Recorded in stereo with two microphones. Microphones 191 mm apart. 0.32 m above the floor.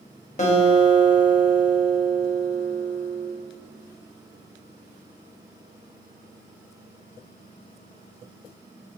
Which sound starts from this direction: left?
A guitar, at 0.4 s.